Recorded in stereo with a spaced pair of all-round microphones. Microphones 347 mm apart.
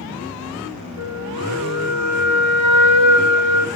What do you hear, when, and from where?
1.0 s a flute: 55° right (ahead or behind), 8 m